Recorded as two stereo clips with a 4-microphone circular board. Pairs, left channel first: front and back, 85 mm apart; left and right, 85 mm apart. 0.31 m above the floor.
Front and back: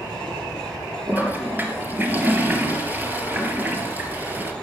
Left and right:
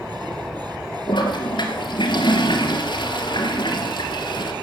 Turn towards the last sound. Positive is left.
turn(degrees=115)